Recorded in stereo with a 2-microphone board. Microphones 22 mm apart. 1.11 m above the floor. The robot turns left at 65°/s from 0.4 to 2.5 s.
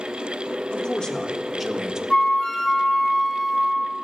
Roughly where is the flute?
Left.